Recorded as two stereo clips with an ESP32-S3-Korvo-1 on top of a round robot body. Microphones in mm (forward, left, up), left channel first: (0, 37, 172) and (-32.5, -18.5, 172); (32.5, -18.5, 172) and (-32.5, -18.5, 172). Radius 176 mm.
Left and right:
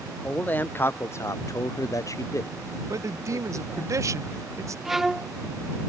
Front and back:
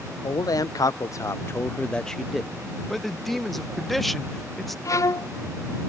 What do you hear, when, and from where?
0.2 s a man speaking: 5° right; by 3.9 s 120° left
2.9 s a man speaking: 90° right
4.8 s a violin: 35° right